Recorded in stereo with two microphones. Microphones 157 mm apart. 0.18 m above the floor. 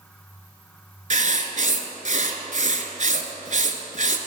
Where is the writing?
55° right (ahead or behind), 1.0 m.